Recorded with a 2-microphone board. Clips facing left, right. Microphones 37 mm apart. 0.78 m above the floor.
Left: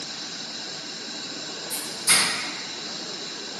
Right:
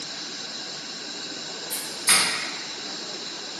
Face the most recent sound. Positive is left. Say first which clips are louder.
# even
turn(degrees=-55)  # may be behind; listen again after turning